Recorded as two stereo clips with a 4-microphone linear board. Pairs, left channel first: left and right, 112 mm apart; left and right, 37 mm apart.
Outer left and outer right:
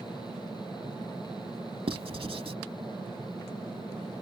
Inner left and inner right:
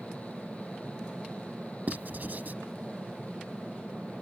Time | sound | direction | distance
1.9 | writing | 55° right (ahead or behind) | ?